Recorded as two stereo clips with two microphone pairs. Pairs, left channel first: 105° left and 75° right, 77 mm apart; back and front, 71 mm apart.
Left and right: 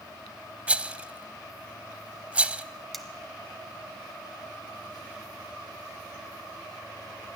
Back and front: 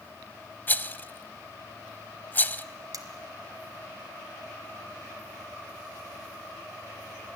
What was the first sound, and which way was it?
A rattle, 130° right.